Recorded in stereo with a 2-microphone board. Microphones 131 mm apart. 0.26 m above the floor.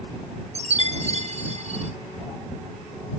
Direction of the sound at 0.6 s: 55° right (ahead or behind).